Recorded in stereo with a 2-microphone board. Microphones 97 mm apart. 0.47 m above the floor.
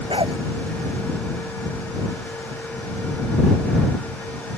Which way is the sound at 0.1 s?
65° right (ahead or behind).